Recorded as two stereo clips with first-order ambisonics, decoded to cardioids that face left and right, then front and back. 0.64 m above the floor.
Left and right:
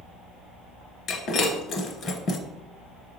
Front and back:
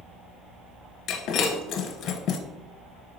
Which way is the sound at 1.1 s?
40° left.